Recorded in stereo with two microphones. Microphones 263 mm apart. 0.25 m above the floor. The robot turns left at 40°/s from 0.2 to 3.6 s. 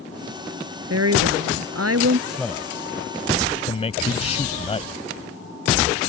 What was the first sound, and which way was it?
A woman speaking, 70° right.